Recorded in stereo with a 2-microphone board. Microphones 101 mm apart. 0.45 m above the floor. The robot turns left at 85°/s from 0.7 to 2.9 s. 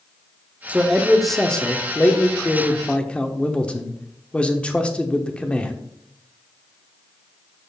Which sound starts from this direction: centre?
A man speaking, at 0.7 s.